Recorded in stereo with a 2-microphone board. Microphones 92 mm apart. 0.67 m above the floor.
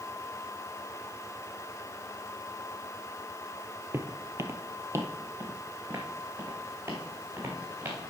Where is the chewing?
I don't hear chewing.